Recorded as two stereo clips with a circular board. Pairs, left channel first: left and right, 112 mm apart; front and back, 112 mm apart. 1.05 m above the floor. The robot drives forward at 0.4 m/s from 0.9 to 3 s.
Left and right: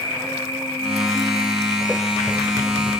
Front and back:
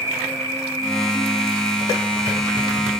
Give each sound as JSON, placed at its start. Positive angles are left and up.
{"t": 0.0, "sound": "an insect", "azimuth_deg": -120, "distance_m": 0.9}